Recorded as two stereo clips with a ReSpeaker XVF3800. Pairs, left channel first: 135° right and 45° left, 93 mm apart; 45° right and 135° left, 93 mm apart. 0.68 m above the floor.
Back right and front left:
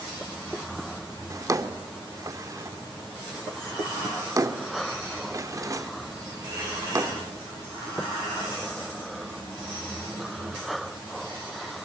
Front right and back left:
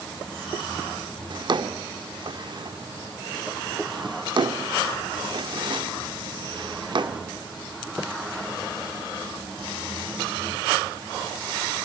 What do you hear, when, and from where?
1.3 s a drawer: 100° left, 0.6 m